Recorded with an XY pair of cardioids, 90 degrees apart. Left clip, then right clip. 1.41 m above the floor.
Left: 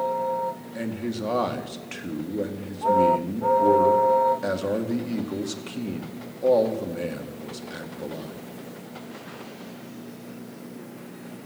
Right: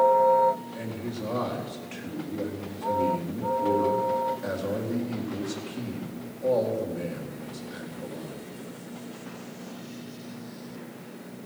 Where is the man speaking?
55° left, 1.8 m.